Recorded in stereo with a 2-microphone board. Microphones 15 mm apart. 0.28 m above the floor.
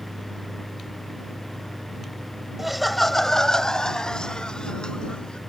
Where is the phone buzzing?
No phone buzzing in this recording.